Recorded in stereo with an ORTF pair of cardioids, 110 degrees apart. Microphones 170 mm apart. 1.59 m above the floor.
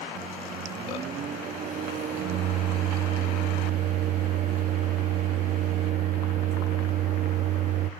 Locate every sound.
0.1 s a microwave: 50° right, 0.7 m